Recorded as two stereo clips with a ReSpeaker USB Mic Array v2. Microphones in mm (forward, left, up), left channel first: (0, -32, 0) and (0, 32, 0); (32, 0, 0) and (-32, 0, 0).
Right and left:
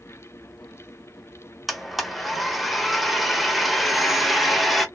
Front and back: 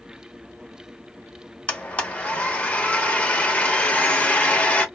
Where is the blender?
5° left, 0.6 m.